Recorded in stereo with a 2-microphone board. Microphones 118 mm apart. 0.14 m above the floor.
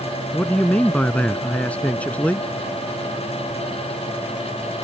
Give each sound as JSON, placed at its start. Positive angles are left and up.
{"t": 0.3, "sound": "a man speaking", "side_deg": 10}